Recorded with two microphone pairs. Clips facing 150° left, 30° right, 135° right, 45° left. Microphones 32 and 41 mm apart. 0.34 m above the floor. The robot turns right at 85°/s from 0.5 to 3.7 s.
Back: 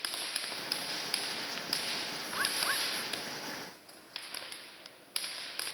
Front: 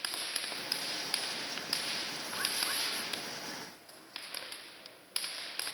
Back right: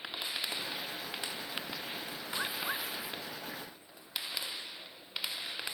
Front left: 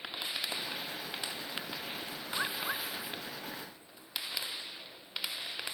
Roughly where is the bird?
Left.